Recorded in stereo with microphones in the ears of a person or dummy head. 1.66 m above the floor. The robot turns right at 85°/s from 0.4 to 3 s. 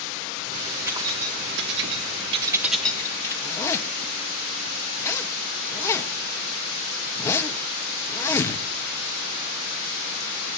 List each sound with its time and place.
0.9 s keys jangling: 10° right (ahead or behind), 1.7 m; by 3.3 s 15° left (ahead or behind), 1.7 m
3.4 s a zipper: 10° left (ahead or behind), 1.2 m